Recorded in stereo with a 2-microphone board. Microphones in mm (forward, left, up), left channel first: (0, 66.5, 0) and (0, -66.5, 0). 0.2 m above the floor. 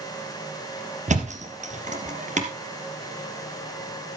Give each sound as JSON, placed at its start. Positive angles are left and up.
{"t": 1.1, "sound": "a thud", "side_deg": -60, "distance_m": 2.5}